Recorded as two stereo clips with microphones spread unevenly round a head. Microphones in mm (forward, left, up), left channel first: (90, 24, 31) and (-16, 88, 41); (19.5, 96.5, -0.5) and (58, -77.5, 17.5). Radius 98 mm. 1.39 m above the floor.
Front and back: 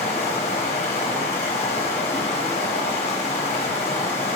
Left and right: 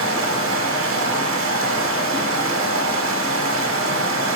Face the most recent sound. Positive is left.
turn(degrees=-85)